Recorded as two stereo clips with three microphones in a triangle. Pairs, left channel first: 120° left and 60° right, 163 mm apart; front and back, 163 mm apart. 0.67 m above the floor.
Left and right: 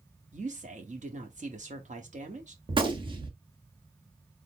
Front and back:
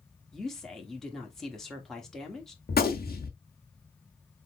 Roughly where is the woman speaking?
Right.